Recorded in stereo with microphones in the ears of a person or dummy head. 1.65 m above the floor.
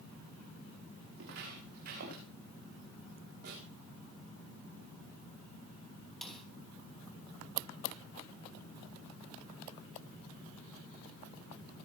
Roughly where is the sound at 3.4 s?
Right.